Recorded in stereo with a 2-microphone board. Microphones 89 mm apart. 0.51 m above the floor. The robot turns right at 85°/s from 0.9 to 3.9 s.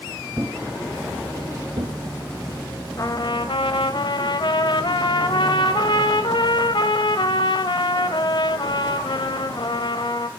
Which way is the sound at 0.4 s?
35° right (ahead or behind).